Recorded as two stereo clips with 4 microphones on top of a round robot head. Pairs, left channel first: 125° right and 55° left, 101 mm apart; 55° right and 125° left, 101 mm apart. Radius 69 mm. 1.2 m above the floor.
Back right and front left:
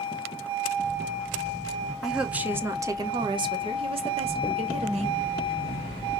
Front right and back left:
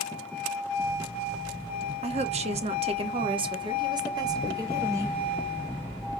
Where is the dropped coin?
135° left, 1.1 m.